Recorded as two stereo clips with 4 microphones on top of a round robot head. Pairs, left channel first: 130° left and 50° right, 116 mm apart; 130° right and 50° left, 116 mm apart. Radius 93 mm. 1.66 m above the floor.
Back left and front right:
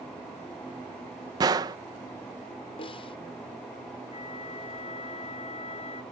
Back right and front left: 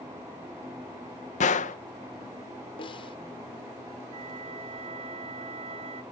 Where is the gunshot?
110° right.